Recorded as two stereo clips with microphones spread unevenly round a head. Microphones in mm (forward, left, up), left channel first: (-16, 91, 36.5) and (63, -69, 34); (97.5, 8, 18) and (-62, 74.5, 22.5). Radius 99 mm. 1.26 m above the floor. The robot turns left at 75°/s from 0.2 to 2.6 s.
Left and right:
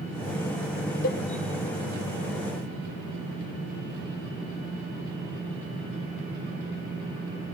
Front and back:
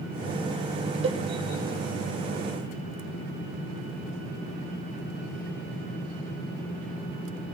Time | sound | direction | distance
1.0 | a cowbell | 120° left | 1.0 m